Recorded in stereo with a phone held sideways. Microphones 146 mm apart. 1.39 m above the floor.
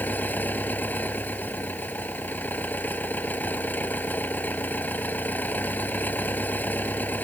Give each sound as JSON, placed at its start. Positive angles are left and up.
{"t": 0.0, "sound": "an engine running", "side_deg": 10}